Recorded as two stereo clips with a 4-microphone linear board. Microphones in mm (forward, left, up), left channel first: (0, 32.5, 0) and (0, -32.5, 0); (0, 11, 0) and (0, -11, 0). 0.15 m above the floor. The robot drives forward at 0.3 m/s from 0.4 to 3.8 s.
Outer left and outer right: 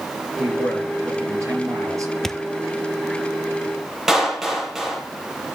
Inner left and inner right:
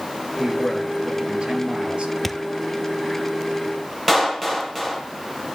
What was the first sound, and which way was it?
A man speaking, 50° right (ahead or behind).